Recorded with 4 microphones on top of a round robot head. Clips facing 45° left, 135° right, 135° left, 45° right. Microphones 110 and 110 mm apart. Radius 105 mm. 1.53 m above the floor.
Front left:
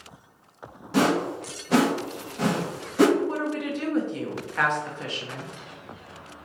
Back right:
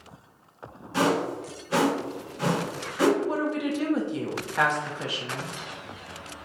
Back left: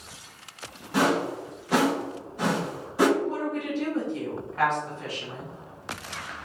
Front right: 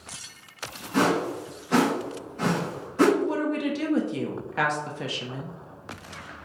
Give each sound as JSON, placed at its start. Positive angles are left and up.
{"t": 0.9, "sound": "a whoosh", "azimuth_deg": 60, "distance_m": 1.4}
{"t": 3.2, "sound": "a woman speaking", "azimuth_deg": -60, "distance_m": 0.7}